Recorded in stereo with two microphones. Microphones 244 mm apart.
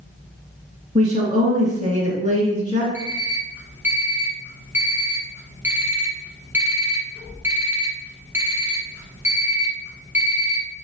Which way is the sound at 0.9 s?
30° right (ahead or behind).